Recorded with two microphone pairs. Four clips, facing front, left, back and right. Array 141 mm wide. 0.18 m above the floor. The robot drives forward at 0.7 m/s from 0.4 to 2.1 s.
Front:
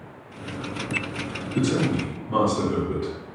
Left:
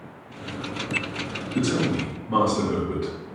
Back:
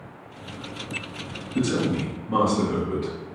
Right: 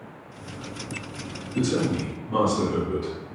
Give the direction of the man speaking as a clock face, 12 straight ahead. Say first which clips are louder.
Even, front 1 dB; 9 o'clock.